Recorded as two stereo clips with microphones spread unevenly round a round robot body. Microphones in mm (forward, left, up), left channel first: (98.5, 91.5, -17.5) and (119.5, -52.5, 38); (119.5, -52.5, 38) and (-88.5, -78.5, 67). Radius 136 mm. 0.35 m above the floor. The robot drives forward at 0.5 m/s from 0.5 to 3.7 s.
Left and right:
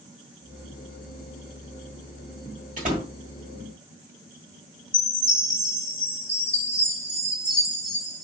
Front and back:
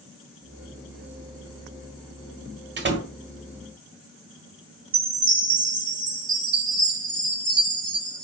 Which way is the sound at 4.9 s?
175° left.